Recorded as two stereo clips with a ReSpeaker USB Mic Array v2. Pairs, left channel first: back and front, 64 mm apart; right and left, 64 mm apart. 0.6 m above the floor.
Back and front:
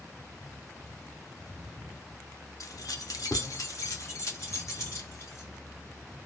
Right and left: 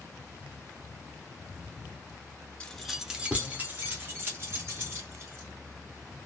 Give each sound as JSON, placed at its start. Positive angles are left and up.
{"t": 2.6, "sound": "keys jangling", "azimuth_deg": -160, "distance_m": 0.5}